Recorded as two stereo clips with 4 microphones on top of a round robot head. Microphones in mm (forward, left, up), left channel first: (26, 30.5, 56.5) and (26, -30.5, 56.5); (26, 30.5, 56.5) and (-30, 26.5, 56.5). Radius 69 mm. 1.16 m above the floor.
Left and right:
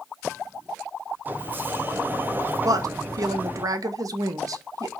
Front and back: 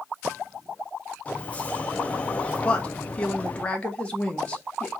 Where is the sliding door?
50° right, 0.6 m.